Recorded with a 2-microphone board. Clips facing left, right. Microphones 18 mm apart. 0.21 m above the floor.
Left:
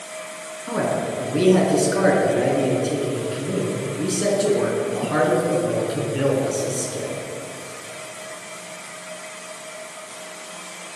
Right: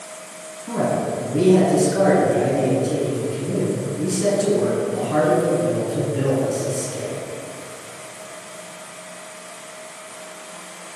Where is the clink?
I don't hear a clink.